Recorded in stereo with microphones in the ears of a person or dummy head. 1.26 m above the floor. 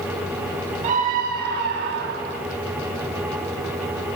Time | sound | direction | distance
0.8 | a scream | 40° right (ahead or behind) | 2 m